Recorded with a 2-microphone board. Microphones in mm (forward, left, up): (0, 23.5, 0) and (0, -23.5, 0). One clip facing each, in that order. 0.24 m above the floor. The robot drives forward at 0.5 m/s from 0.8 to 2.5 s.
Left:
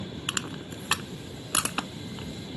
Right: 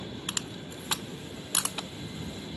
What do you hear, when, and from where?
0.3 s crushing: 60° left (ahead or behind); by 2.3 s 65° left (ahead or behind)